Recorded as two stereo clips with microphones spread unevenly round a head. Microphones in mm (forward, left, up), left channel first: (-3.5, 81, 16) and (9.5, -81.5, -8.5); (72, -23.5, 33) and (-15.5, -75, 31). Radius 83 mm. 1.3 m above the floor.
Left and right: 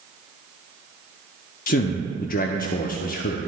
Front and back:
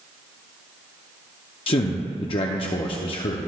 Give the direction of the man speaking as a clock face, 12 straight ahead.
10 o'clock.